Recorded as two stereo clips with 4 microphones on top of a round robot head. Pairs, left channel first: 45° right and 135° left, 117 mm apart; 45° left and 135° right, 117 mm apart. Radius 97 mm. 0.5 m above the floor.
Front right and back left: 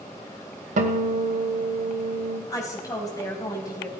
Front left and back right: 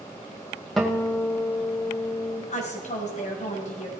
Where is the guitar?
135° left, 2 m.